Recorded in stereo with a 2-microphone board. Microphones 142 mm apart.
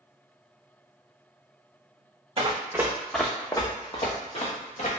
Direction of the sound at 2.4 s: 40° right (ahead or behind).